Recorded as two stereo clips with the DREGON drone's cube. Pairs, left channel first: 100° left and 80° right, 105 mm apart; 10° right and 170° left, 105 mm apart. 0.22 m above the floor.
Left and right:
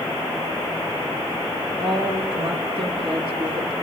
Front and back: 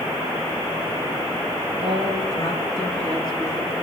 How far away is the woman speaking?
About 4 m.